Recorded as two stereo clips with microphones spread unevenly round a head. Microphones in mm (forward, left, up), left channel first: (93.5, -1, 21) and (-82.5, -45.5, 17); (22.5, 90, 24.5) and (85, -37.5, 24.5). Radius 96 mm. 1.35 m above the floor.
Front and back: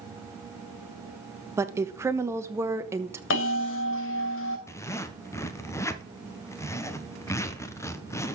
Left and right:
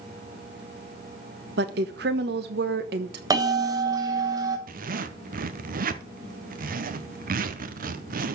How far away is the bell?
About 2.5 m.